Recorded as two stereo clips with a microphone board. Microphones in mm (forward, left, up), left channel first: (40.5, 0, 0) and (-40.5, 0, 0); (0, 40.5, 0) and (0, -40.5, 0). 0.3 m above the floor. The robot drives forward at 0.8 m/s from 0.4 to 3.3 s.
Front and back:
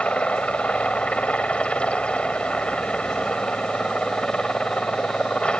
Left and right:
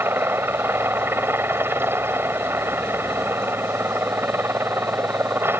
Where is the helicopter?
60° right; by 5.6 s 65° right.